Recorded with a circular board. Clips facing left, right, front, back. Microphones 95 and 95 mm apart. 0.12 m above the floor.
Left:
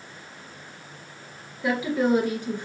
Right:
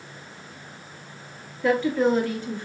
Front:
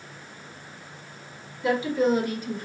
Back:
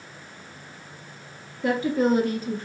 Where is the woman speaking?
170° left, 1.7 m; by 2.6 s 145° left, 1.3 m.